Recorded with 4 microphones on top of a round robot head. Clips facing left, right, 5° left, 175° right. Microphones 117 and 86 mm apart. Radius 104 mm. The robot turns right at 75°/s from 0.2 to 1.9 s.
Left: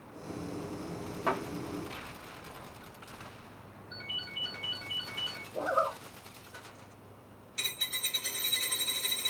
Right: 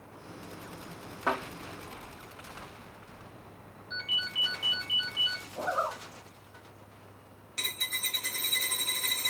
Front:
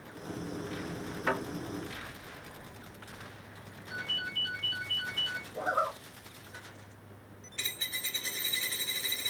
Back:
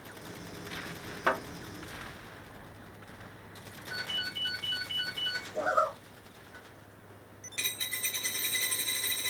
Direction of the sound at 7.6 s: 140° right.